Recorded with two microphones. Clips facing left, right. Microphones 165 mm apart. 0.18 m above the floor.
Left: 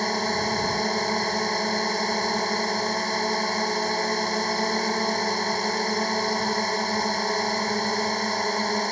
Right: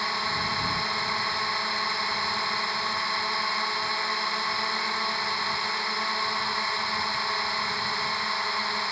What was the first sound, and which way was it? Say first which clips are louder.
A drone: left 7 dB; 40° left (ahead or behind).